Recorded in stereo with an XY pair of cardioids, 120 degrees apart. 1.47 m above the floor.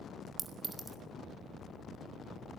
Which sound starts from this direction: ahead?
A clink, at 0.4 s.